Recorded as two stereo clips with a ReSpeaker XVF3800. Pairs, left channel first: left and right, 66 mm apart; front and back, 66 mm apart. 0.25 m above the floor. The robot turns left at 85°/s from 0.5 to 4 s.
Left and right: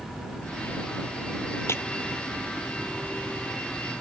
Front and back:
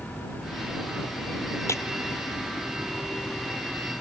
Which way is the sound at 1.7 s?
45° left.